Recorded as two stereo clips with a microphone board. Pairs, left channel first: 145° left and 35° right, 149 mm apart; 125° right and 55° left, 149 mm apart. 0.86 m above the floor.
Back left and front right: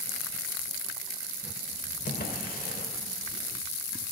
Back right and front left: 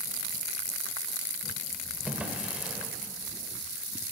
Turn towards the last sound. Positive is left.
turn(degrees=135)